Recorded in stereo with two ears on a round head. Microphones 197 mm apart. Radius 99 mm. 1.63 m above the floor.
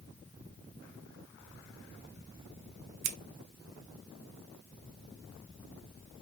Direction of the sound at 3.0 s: 65° right (ahead or behind).